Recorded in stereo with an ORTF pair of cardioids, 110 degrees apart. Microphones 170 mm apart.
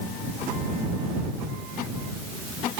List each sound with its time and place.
Only background noise.